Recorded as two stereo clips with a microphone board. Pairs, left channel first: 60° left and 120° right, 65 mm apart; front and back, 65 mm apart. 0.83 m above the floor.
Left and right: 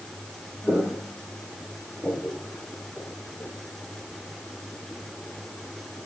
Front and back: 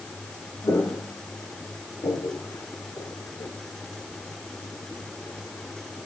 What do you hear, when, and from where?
0.6 s footsteps: 30° right, 4 m; by 3.5 s 5° right, 4.5 m